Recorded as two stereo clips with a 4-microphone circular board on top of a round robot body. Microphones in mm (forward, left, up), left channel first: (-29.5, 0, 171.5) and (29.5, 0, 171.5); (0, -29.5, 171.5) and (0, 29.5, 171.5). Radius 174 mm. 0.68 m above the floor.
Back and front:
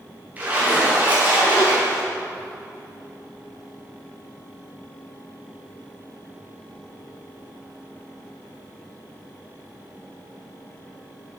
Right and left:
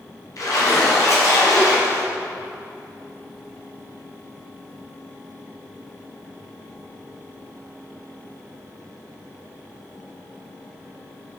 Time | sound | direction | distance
0.4 | a splash | 65° right | 2.5 m